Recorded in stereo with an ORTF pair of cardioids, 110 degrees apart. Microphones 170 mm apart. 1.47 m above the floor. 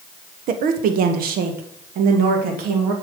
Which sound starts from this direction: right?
A woman speaking, at 0.5 s.